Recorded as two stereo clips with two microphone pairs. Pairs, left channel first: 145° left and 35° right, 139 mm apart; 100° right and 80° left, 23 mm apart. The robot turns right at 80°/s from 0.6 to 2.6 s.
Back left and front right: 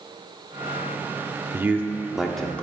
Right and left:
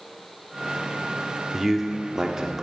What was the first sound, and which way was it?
A man speaking, 5° right.